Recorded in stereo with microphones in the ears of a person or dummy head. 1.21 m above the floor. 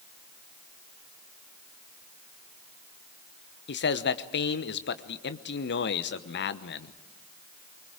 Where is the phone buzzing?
No phone buzzing in this recording.